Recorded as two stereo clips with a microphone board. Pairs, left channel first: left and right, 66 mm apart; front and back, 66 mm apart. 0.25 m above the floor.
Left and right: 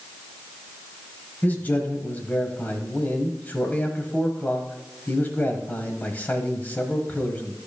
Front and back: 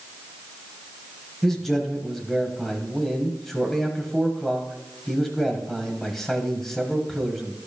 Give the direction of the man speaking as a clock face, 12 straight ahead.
9 o'clock.